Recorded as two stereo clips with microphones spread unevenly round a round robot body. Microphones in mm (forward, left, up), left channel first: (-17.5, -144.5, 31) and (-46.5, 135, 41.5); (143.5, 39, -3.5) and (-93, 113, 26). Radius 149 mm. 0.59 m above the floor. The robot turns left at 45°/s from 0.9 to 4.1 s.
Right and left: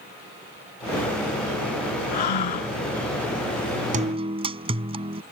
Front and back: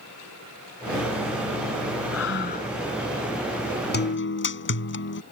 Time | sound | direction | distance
2.1 | breathing | 65° right | ?
3.9 | a guitar | 30° left | ?